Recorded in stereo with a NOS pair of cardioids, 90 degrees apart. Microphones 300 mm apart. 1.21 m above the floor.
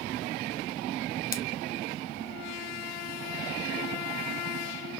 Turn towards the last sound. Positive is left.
turn(degrees=30)